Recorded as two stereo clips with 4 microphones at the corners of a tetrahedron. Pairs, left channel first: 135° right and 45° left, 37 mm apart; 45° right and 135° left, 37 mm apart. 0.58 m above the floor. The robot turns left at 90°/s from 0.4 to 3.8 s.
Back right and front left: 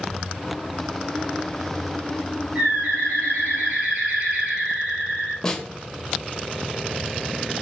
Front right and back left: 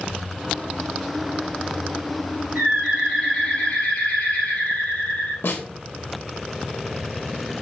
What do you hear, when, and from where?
2.5 s a bird: 90° left, 4 m; by 5.3 s 25° right, 4 m
5.4 s a snare drum: 60° right, 1.0 m